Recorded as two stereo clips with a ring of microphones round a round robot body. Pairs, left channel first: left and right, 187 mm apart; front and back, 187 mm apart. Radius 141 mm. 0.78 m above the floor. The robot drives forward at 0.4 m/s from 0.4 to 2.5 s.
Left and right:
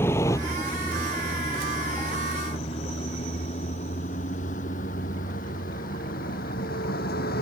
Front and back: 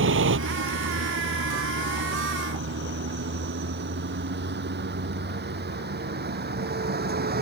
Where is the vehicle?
170° left; by 7.4 s 145° left.